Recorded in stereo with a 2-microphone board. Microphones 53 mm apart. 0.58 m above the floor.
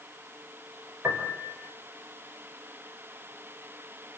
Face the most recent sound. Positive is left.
turn(degrees=-65)  # may be behind; listen again after turning